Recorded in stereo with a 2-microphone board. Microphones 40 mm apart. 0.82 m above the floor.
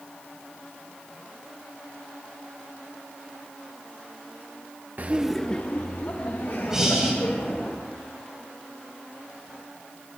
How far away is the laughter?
About 0.7 m.